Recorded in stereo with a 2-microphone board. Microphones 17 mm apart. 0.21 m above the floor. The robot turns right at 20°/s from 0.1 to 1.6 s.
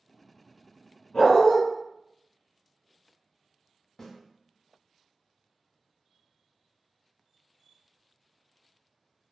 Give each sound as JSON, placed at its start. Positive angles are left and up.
{"t": 1.1, "sound": "a dog barking", "side_deg": 70, "distance_m": 1.7}
{"t": 4.0, "sound": "a snare drum", "side_deg": 25, "distance_m": 1.5}